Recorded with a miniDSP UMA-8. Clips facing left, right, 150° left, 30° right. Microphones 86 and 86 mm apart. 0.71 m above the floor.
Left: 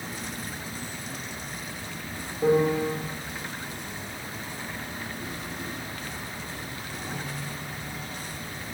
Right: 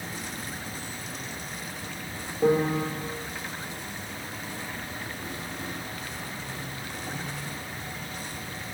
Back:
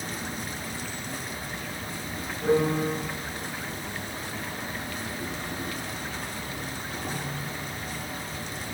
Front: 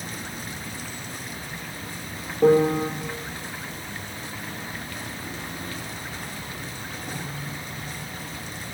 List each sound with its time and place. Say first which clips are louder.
0.0 s an insect: left 1 dB, back 1 dB; 165° left, 8.5 m
2.4 s a piano: left 1 dB, front 6 dB; 10° right, 5 m